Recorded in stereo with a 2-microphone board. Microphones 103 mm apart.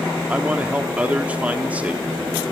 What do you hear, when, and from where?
0.3 s a man speaking: 15° right (ahead or behind), 1.5 m